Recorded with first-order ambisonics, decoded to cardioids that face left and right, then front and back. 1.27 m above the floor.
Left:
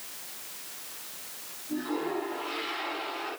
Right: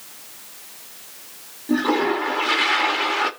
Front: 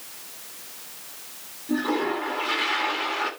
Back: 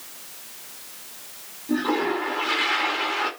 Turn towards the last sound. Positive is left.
turn(degrees=-95)